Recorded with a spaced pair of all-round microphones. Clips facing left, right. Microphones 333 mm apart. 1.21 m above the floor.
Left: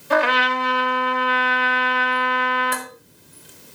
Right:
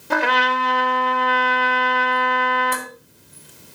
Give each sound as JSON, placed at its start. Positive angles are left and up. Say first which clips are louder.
{"t": 0.1, "sound": "a trumpet", "louder": "left 2 dB", "side_deg": -55, "distance_m": 2.0}
{"t": 2.7, "sound": "dishes clattering", "louder": "right 1 dB", "side_deg": -10, "distance_m": 4.0}